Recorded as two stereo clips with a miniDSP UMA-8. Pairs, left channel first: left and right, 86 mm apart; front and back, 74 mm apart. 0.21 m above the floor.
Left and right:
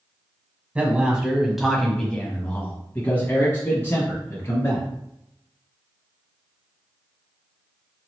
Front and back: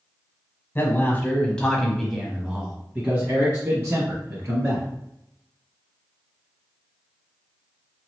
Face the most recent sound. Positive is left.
turn(degrees=140)